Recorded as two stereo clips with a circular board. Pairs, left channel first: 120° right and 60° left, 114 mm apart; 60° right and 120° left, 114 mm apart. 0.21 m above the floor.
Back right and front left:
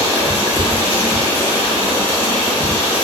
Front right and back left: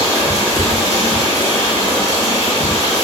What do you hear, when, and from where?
0.0 s running water: 160° right, 1.4 m